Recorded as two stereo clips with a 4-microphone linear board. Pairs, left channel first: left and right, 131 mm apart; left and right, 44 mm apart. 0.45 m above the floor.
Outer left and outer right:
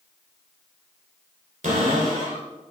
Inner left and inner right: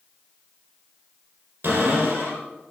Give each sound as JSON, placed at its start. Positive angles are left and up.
{"t": 1.6, "sound": "a cupboard door", "side_deg": -80, "distance_m": 3.0}